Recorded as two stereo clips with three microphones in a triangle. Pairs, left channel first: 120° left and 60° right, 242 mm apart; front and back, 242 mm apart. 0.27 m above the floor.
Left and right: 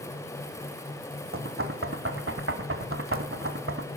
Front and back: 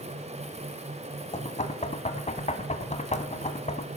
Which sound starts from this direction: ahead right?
Knocking, at 1.3 s.